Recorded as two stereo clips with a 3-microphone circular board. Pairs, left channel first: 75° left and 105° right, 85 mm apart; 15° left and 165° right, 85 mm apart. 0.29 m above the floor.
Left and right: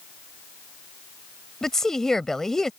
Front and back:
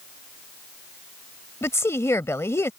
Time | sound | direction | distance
1.6 | a woman speaking | 5° right | ?